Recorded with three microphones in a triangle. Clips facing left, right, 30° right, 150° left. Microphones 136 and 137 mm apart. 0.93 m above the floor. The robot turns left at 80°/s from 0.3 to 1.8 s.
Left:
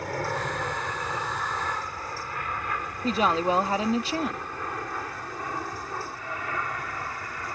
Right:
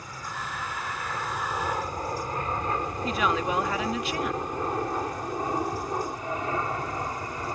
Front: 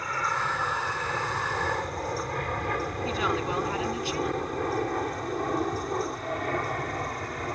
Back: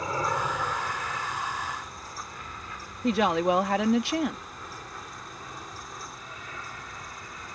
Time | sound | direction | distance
0.0 | an aircraft | 85° left | ?
3.0 | a woman speaking | 145° left | ?